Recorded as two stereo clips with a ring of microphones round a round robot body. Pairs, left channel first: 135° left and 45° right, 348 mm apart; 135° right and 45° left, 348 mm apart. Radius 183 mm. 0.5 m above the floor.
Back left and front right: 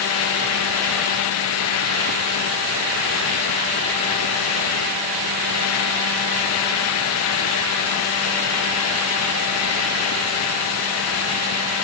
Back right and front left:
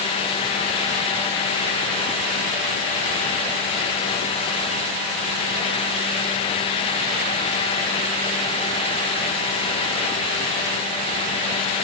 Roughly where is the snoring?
I don't hear snoring.